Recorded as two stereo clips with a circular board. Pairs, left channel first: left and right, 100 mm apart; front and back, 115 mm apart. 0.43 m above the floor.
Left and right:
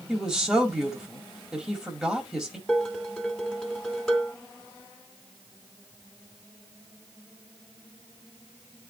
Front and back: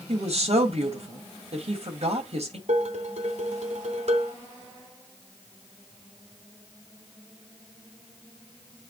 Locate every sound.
0.1 s a woman speaking: 175° right, 2 m
2.7 s dishes clattering: 175° left, 2 m